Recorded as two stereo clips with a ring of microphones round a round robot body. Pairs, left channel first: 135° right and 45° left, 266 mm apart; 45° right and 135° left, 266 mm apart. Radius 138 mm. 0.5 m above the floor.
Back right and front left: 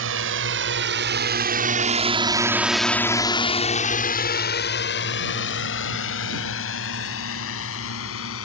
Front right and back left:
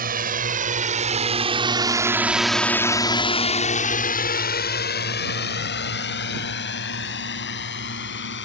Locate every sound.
0.0 s a drone: 80° left; by 8.5 s 95° right